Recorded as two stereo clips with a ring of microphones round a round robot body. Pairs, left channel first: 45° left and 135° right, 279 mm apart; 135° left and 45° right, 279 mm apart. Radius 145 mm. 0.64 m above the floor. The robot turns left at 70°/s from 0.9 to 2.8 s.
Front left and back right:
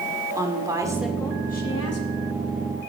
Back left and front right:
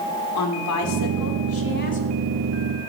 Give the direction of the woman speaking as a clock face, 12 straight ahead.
7 o'clock.